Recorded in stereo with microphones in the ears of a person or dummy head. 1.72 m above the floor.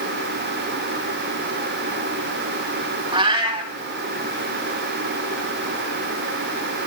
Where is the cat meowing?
30° right (ahead or behind), 2.0 m.